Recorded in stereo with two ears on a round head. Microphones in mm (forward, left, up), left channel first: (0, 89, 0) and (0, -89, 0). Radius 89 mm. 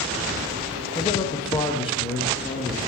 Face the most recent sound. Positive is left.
turn(degrees=25)  # may be behind; listen again after turning